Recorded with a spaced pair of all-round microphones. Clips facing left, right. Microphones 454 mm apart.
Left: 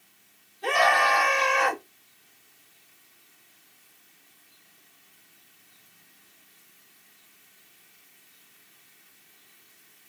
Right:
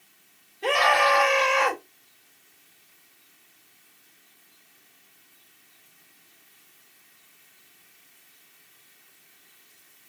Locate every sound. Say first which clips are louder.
0.6 s a scream: right 2 dB; 90° right, 3 m